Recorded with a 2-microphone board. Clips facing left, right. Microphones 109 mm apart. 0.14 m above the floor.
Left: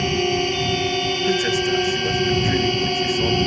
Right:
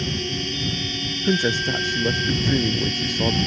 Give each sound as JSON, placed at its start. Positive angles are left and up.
{"t": 0.0, "sound": "a drone", "side_deg": 60}
{"t": 1.2, "sound": "a man speaking", "side_deg": -20}